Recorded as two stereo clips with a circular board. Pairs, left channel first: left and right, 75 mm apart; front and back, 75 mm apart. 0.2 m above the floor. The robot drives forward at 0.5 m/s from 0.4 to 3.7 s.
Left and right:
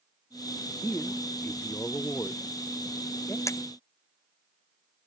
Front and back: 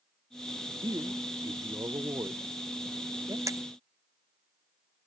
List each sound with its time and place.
0.8 s a man speaking: 145° left
3.5 s breaking glass: 135° left